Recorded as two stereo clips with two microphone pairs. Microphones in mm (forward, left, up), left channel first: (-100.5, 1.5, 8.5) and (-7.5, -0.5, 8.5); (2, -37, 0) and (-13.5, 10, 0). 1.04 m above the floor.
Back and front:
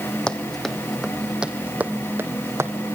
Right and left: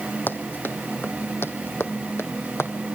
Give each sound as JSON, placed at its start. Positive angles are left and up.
{"t": 0.3, "sound": "running footsteps", "azimuth_deg": -105, "distance_m": 1.9}